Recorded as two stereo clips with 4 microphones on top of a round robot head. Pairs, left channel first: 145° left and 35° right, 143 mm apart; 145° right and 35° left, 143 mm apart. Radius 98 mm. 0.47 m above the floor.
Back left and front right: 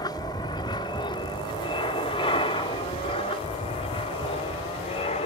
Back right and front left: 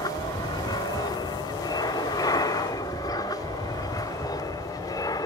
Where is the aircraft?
Straight behind; by 5.3 s 160° left.